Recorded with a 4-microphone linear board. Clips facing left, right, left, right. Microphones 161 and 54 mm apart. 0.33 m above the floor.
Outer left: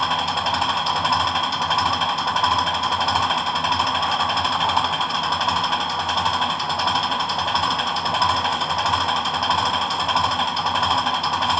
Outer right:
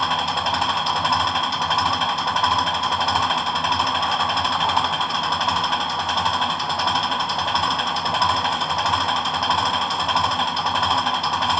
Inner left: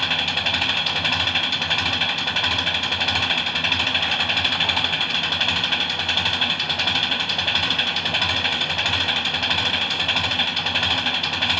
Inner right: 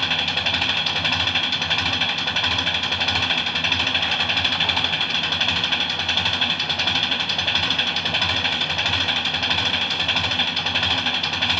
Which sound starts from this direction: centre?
An engine running, at 0.0 s.